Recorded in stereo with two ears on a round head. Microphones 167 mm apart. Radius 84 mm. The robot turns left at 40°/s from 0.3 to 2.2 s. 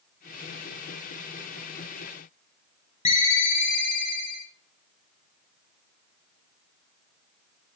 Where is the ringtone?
40° left (ahead or behind), 1.5 m.